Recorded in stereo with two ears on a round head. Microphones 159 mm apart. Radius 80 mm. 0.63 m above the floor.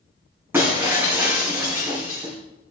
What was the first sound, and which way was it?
Breaking glass, 15° right (ahead or behind).